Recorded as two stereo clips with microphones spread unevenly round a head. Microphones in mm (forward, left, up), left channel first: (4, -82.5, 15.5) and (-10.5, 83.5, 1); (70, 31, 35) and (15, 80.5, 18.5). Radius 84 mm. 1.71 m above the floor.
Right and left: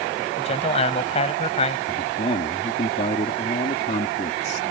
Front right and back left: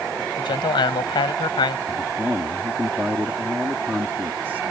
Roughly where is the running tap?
I don't hear a running tap.